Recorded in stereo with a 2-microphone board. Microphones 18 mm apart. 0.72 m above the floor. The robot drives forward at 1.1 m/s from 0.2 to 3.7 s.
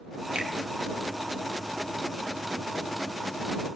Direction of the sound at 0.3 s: 70° right (ahead or behind).